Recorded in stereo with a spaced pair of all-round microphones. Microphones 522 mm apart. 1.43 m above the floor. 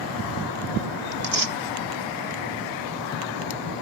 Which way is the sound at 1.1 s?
65° right (ahead or behind).